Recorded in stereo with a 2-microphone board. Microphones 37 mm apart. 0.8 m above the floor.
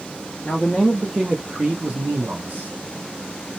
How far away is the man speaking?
About 0.7 m.